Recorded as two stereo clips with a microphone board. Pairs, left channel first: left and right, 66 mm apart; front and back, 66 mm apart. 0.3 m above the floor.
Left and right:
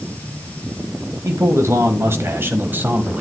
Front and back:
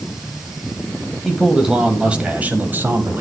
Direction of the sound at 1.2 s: 90° right.